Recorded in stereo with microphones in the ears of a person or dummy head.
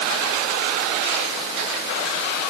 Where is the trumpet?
I don't hear a trumpet.